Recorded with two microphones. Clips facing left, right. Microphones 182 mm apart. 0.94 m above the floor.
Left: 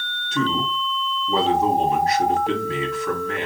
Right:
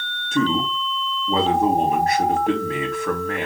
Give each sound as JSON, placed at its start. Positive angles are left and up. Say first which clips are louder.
{"t": 0.3, "sound": "a man speaking", "louder": "right 3 dB", "side_deg": -50, "distance_m": 1.6}